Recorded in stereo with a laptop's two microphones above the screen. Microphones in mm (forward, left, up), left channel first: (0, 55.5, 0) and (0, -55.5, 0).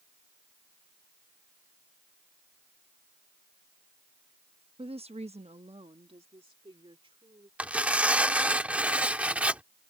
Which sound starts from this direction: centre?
Tearing paper, at 7.6 s.